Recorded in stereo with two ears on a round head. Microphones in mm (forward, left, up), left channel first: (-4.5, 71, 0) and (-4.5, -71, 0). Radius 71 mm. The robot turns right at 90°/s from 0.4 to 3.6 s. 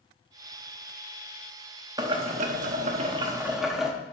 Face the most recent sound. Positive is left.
turn(degrees=-5)